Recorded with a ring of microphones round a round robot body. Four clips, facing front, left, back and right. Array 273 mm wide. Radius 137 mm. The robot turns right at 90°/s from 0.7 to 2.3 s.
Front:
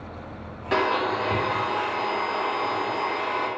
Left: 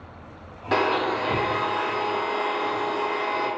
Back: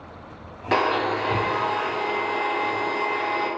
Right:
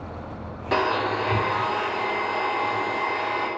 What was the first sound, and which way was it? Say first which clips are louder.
A blender: left 1 dB, back 1 dB; straight behind.